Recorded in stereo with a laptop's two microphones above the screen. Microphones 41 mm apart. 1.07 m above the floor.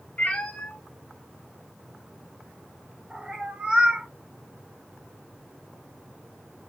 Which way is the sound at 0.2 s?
40° left (ahead or behind).